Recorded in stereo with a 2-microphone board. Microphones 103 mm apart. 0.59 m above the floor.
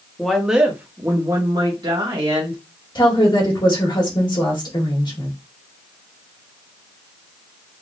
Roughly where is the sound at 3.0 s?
Left.